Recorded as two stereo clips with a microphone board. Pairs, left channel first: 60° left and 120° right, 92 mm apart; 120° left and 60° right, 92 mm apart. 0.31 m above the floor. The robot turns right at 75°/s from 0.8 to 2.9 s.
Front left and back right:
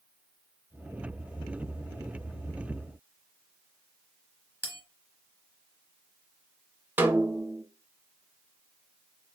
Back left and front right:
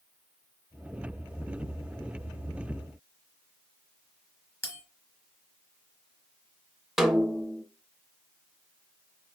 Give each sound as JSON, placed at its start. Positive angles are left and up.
{"t": 4.6, "sound": "a bell", "azimuth_deg": 175, "distance_m": 1.1}
{"t": 7.0, "sound": "a snare drum", "azimuth_deg": -140, "distance_m": 0.5}